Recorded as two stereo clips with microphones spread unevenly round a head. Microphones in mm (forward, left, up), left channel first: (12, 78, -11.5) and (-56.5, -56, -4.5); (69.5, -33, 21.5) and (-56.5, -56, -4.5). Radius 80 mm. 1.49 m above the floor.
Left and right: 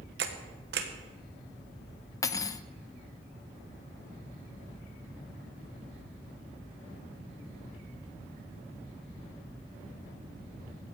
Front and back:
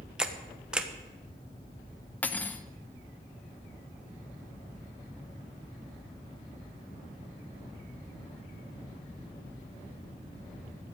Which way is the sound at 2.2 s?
20° left.